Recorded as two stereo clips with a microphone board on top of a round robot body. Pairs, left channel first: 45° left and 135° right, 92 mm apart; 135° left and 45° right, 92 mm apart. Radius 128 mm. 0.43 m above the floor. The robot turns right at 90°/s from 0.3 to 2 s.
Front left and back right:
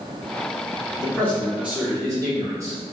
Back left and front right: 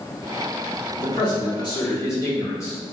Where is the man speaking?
90° left, 1.6 m; by 2.8 s straight behind, 1.6 m.